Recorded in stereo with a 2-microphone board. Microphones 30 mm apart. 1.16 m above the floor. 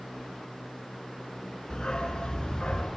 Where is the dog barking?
25° left (ahead or behind), 3 m; by 2.9 s 30° left (ahead or behind), 3.5 m.